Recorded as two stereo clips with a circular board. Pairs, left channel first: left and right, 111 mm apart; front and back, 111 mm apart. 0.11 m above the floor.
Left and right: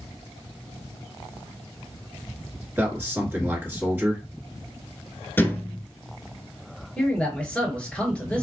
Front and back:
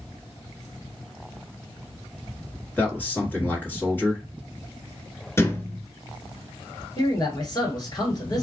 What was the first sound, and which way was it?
A man speaking, 50° right.